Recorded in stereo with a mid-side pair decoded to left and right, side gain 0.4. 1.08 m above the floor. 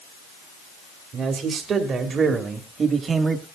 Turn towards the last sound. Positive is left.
turn(degrees=-45)